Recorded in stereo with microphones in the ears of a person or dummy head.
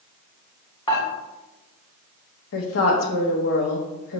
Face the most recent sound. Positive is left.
turn(degrees=80)